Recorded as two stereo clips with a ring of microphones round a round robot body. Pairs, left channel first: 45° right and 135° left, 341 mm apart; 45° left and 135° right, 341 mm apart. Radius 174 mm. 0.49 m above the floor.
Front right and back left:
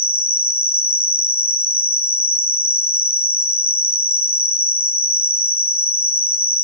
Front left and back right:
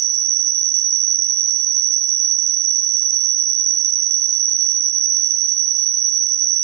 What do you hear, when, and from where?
0.0 s an insect: 125° right, 1.2 m